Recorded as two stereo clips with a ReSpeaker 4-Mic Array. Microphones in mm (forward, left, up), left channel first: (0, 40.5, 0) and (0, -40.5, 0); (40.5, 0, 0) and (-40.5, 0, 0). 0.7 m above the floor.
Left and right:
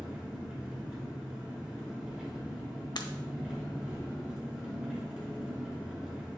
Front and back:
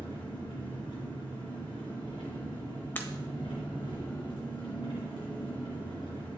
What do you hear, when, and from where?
0.0 s an engine running: 10° right, 3 m
3.0 s breaking glass: 65° left, 0.7 m